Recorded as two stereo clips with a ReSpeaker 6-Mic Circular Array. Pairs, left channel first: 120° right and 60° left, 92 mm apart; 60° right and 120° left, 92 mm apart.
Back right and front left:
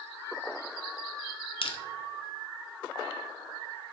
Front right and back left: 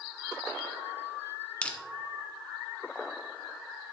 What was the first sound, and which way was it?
Crushing, 140° right.